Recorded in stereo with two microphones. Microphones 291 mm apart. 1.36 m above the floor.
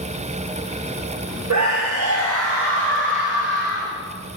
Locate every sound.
1.5 s a scream: 70° right (ahead or behind), 1.2 m; by 4.0 s 35° right (ahead or behind), 3 m